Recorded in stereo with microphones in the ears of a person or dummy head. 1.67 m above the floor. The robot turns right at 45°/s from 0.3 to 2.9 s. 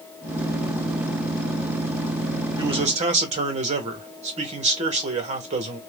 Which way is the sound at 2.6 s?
20° right (ahead or behind).